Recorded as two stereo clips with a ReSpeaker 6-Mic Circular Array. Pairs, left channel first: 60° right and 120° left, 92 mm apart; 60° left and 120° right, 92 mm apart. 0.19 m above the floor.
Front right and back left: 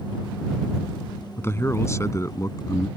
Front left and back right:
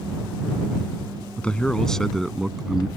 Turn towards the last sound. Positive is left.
turn(degrees=-40)